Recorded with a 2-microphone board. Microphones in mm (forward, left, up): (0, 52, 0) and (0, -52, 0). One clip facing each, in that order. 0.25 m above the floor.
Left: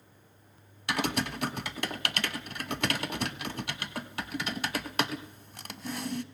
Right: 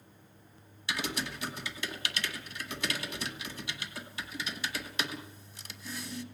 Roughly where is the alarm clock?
I don't hear an alarm clock.